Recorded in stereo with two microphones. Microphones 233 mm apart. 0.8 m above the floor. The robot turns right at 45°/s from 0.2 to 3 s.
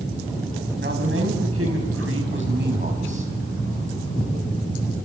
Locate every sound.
0.8 s a man speaking: 130° right, 5.5 m; by 3.3 s 30° right, 5.5 m